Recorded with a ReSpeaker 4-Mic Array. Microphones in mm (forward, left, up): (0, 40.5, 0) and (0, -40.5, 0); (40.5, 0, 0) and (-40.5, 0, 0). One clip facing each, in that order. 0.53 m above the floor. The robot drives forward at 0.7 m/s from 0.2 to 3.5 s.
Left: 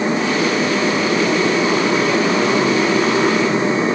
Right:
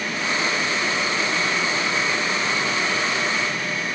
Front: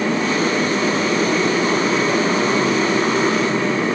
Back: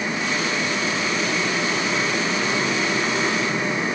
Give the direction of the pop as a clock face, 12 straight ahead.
No pop in this recording.